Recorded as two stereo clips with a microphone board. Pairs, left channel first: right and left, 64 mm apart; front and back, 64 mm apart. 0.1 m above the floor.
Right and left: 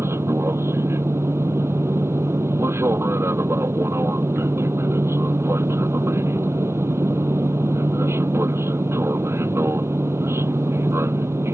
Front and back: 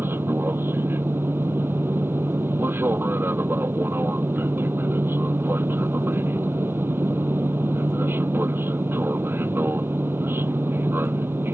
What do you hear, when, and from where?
0.0 s an aircraft: 130° left